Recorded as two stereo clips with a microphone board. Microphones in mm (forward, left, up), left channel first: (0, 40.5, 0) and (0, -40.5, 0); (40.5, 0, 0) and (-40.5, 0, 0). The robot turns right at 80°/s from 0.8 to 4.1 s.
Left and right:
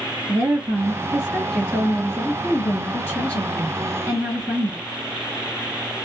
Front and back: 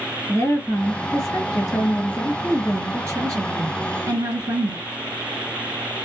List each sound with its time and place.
0.3 s a woman speaking: 50° right, 2 m; by 4.8 s 145° right, 2 m